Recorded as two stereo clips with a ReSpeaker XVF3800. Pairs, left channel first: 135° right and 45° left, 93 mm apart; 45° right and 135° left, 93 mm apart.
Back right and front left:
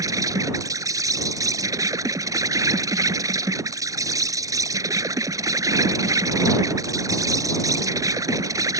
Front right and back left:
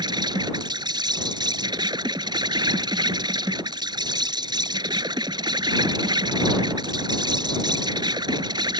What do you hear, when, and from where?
0.0 s an insect: 100° left